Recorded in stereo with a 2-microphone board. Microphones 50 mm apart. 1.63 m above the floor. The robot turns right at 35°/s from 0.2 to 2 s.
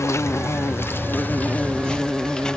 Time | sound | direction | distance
0.0 | an insect | 100° left | ?